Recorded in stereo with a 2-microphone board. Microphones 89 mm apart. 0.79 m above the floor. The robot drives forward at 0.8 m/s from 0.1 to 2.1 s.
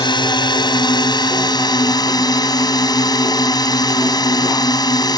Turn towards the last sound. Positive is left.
turn(degrees=50)  # may be behind; listen again after turning